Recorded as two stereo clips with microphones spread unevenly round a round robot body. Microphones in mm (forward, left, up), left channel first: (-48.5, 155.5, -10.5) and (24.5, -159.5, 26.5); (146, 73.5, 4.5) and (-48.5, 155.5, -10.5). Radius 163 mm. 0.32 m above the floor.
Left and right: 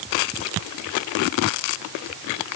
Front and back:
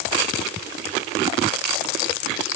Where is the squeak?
No squeak in this recording.